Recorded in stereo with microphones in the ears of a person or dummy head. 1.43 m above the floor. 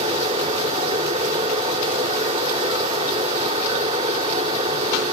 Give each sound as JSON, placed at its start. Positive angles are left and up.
{"t": 0.0, "sound": "running water", "side_deg": -35, "distance_m": 2.5}